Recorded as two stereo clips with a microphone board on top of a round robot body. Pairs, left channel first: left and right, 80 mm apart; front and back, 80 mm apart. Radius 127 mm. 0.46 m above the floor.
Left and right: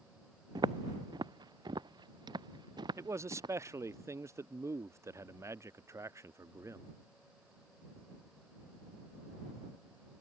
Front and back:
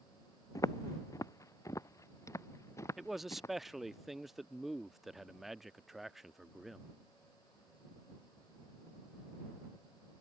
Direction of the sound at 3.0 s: 95° right.